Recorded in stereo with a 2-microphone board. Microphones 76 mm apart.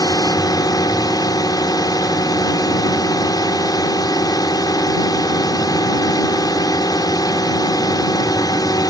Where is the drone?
55° left (ahead or behind).